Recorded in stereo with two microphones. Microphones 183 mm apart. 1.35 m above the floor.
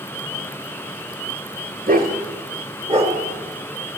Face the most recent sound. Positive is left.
turn(degrees=-30)  # may be behind; listen again after turning